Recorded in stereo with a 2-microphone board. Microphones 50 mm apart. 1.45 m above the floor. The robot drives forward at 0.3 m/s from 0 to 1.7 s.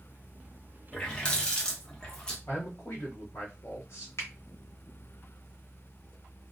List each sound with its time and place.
0.9 s a running tap: 20° left (ahead or behind), 0.7 m; by 2.4 s 15° left (ahead or behind), 0.8 m
2.5 s a man speaking: 60° left (ahead or behind), 0.8 m
4.2 s a finger snap: 65° left (ahead or behind), 1.0 m